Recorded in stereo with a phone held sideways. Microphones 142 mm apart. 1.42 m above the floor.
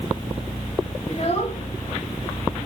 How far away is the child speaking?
About 1.6 m.